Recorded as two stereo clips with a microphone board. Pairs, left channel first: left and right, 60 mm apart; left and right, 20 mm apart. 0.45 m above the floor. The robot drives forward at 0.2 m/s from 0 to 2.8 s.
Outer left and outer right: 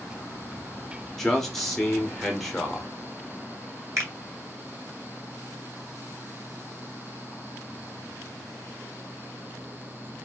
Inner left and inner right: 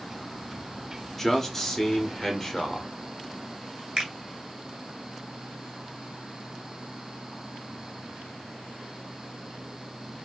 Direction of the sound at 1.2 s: 5° left (ahead or behind).